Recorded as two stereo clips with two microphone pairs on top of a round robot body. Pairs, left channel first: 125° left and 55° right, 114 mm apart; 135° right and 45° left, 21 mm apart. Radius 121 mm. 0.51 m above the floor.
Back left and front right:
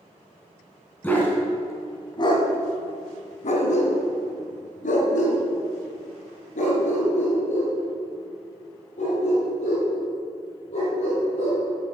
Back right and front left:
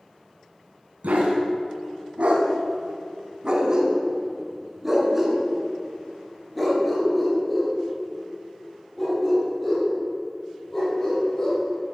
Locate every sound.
1.0 s a dog barking: 50° left, 1.8 m; by 11.6 s 155° left, 6 m